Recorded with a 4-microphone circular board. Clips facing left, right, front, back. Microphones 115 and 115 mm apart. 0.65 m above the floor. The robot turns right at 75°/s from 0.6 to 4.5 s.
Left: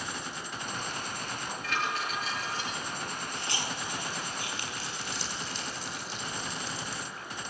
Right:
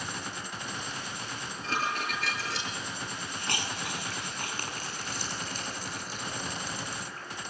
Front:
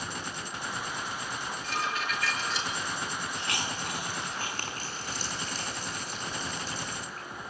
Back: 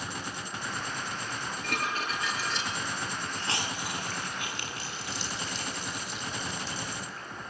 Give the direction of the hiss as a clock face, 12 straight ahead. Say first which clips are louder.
Right 2 dB, even; 4 o'clock.